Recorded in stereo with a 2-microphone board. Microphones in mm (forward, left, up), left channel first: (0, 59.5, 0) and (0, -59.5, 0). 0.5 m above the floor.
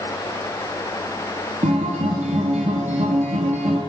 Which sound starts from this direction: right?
A guitar, at 1.6 s.